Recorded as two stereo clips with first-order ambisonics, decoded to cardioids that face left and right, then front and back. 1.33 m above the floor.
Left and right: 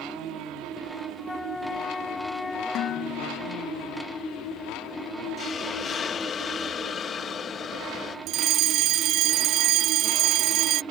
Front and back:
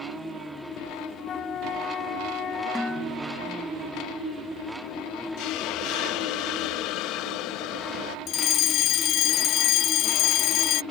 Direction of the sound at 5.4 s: 30° left.